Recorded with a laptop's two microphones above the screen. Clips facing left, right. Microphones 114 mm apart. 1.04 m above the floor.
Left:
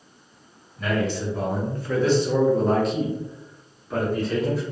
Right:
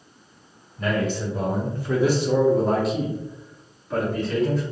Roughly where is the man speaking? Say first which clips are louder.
Even; centre.